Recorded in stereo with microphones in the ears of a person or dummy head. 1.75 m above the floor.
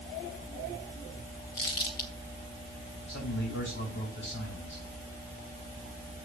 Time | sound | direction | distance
1.6 | crumpling | 25° left (ahead or behind) | 0.9 m
3.1 | a man speaking | 65° left (ahead or behind) | 5.5 m